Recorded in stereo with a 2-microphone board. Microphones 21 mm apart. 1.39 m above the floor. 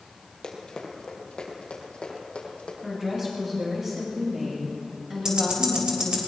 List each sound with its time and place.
0.4 s running footsteps: 40° left (ahead or behind), 2.5 m; by 2.7 s 65° left (ahead or behind), 3.5 m
2.8 s a woman speaking: 15° right (ahead or behind), 7 m
5.2 s ticking: 30° right (ahead or behind), 3 m